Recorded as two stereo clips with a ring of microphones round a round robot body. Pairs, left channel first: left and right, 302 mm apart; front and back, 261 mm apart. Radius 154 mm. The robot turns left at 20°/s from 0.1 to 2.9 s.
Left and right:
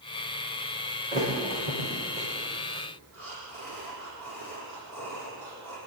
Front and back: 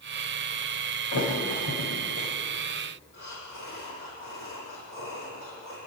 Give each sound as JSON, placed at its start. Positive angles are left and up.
{"t": 1.1, "sound": "a thud", "azimuth_deg": -20, "distance_m": 8.5}
{"t": 3.1, "sound": "breathing", "azimuth_deg": -70, "distance_m": 9.0}